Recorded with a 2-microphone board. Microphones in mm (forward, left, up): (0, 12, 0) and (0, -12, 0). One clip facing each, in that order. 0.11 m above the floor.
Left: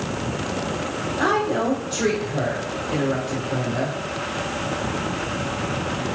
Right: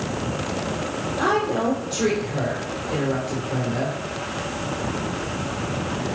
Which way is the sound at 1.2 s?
5° left (ahead or behind).